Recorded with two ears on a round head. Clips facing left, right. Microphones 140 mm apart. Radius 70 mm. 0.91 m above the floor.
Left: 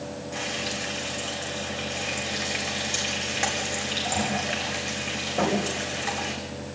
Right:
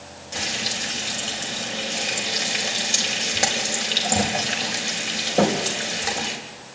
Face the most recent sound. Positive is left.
turn(degrees=-40)  # may be behind; listen again after turning